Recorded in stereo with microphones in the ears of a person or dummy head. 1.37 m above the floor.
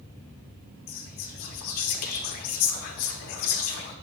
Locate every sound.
0.9 s whispering: 50° left (ahead or behind), 0.5 m